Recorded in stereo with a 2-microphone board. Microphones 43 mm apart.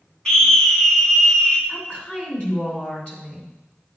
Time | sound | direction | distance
0.2 | a scream | 15° left (ahead or behind) | 1.6 m
1.7 | a woman speaking | 25° left (ahead or behind) | 2 m